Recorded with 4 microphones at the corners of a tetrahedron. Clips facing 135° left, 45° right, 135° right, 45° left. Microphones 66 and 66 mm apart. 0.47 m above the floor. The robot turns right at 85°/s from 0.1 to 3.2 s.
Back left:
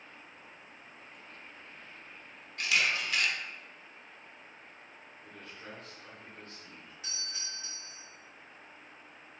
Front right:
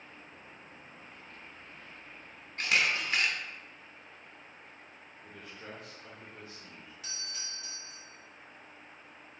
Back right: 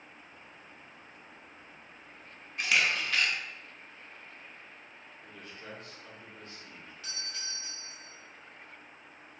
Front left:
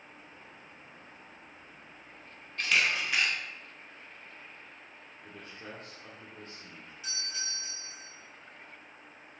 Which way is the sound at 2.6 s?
65° right.